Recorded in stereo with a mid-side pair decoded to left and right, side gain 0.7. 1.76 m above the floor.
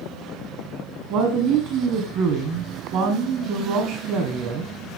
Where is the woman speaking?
60° right, 1.6 m.